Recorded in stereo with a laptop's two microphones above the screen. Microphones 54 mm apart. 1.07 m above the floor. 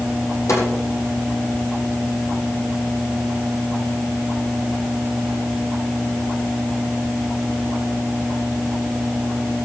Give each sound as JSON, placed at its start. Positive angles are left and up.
{"t": 0.5, "sound": "a snare drum", "side_deg": 85, "distance_m": 7.5}